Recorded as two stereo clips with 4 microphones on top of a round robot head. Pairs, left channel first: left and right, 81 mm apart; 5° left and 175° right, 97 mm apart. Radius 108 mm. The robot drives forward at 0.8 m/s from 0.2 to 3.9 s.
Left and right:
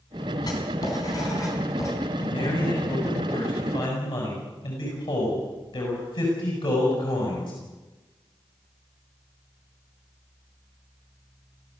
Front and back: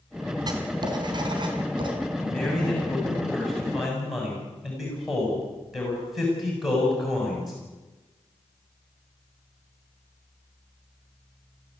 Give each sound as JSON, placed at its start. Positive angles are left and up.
{"t": 0.5, "sound": "writing", "azimuth_deg": 135, "distance_m": 3.5}
{"t": 2.2, "sound": "a man speaking", "azimuth_deg": 85, "distance_m": 7.0}